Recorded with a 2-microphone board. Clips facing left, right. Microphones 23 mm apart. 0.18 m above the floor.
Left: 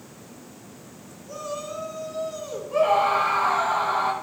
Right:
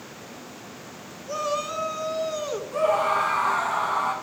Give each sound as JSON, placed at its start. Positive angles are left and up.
{"t": 1.3, "sound": "a shout", "side_deg": -50, "distance_m": 2.5}
{"t": 2.7, "sound": "a scream", "side_deg": 50, "distance_m": 7.5}